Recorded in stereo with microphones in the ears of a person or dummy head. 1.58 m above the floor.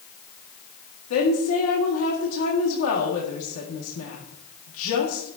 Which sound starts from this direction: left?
A woman speaking, at 1.1 s.